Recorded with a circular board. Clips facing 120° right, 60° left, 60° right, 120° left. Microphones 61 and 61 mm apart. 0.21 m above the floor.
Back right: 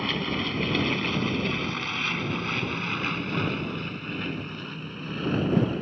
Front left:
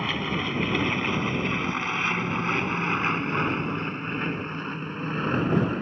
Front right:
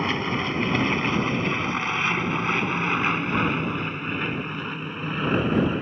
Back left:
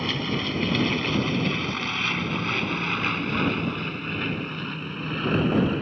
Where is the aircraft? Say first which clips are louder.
Front left 1 dB, front right 2 dB; 15° right; by 5.8 s 15° left.